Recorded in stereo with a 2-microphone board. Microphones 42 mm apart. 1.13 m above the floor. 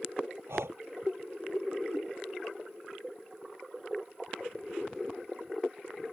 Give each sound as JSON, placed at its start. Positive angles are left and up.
{"t": 0.5, "sound": "breathing", "side_deg": -80}